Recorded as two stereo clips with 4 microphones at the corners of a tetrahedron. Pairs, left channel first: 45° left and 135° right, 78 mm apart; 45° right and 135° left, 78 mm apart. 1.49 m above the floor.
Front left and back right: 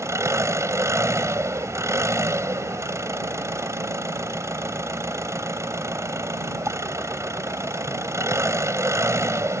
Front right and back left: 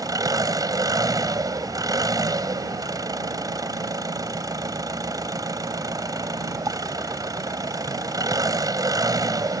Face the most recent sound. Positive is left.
turn(degrees=175)